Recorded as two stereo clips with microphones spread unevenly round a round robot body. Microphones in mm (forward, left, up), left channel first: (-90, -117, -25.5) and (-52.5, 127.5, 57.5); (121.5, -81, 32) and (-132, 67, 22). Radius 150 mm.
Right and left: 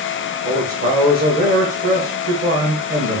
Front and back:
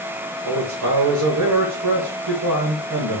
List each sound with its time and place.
0.5 s a man speaking: 125° left, 1.6 m